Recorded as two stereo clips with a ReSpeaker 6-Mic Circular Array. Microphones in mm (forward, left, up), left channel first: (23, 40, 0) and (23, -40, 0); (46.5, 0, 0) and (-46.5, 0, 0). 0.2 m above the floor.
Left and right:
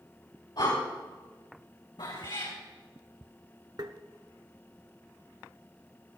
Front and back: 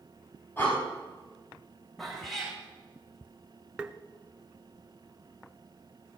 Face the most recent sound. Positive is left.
turn(degrees=-105)